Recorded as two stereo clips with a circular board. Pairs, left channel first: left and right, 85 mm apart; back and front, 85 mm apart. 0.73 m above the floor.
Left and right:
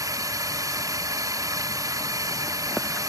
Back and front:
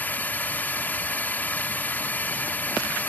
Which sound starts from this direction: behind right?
A drone, at 0.0 s.